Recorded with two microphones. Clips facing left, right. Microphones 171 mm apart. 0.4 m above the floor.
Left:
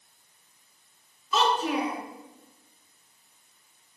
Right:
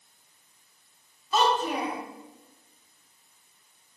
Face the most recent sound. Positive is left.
turn(degrees=-55)  # may be behind; listen again after turning